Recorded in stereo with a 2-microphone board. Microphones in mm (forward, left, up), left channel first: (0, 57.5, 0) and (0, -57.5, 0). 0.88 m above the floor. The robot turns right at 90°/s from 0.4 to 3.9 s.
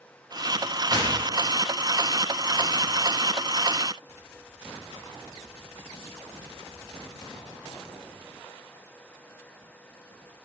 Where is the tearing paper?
35° right (ahead or behind), 9.5 m; by 2.9 s 35° left (ahead or behind), 9.5 m.